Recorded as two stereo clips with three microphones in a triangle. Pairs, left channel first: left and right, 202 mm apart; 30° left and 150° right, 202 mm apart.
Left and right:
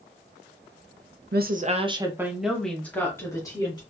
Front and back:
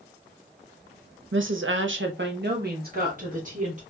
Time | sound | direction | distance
1.3 | a woman speaking | 130° right | 0.6 m